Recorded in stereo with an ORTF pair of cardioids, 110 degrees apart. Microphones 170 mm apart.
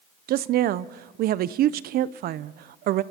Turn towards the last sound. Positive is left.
turn(degrees=-60)